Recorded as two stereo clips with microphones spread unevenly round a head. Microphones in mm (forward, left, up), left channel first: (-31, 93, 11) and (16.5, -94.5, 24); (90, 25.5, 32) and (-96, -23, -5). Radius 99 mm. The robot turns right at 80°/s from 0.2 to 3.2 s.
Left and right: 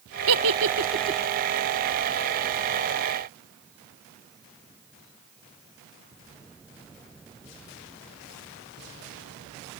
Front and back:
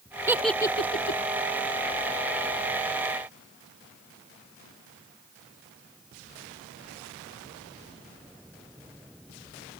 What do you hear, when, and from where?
0.3 s a giggle: 85° right; by 1.2 s 10° right